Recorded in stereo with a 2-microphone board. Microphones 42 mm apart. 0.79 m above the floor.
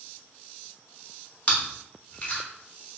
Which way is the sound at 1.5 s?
30° left (ahead or behind).